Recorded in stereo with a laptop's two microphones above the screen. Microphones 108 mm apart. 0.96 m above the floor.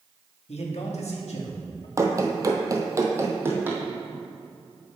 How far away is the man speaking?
About 1.4 m.